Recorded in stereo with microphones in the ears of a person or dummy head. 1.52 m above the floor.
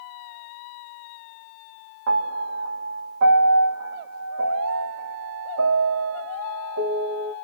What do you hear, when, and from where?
2.1 s a piano: 75° right (ahead or behind), 1.6 m